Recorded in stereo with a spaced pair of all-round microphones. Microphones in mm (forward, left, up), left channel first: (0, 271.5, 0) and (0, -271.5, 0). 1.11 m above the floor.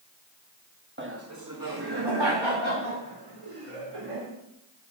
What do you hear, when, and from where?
1.0 s laughter: 20° right (ahead or behind), 1.3 m; by 4.3 s 75° right (ahead or behind), 3 m